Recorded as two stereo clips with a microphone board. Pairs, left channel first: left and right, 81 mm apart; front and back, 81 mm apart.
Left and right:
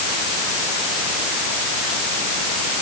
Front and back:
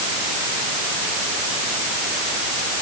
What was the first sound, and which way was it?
Only background noise.